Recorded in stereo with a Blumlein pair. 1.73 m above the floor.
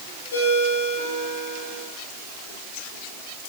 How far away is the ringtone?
About 4.5 m.